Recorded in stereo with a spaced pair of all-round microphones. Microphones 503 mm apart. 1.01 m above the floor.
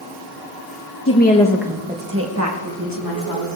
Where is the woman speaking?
30° left (ahead or behind), 1.1 m; by 3.5 s 45° right (ahead or behind), 2.5 m.